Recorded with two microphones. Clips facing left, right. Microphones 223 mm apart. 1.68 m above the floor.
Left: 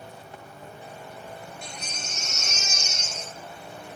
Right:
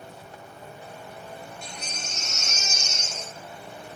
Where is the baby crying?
55° left (ahead or behind), 0.8 m.